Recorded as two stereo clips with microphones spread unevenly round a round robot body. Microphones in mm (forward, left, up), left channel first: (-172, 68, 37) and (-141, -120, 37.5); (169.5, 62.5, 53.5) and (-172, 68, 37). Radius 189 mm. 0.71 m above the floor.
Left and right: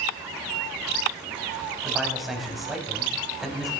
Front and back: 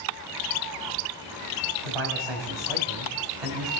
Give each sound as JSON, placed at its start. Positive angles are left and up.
{"t": 1.8, "sound": "a man speaking", "azimuth_deg": -170, "distance_m": 4.0}